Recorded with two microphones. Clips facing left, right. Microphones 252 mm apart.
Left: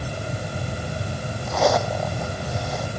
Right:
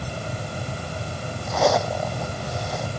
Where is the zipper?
Centre (ahead or behind).